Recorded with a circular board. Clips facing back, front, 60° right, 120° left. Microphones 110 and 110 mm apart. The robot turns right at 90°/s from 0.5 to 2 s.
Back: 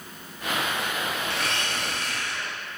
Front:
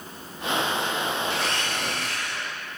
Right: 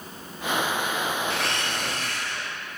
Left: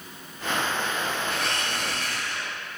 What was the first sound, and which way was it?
A blender, 75° right.